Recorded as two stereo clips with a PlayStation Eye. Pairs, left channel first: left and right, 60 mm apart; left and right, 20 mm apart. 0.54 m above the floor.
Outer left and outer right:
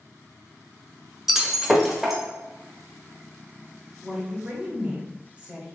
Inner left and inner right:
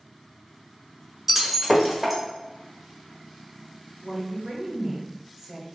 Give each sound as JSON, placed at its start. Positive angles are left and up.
{"t": 1.3, "sound": "breaking glass", "side_deg": -5, "distance_m": 0.8}
{"t": 4.0, "sound": "a woman speaking", "side_deg": -20, "distance_m": 1.2}